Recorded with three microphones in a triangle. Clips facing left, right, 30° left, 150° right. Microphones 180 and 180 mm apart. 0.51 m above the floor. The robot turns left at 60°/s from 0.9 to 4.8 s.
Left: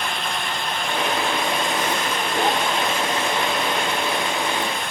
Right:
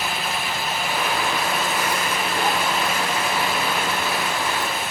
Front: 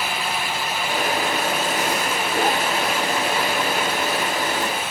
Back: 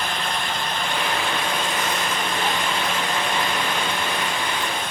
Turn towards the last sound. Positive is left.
No sound to turn to.